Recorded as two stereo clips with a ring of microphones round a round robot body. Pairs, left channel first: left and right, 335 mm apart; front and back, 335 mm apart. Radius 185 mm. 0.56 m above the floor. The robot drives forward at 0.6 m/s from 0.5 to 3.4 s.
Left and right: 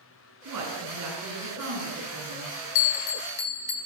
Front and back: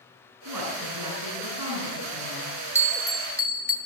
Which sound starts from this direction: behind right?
A woman speaking, at 0.5 s.